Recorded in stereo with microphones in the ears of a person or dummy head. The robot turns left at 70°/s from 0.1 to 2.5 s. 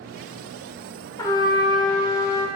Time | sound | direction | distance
1.2 | a trumpet | 15° left (ahead or behind) | 0.6 m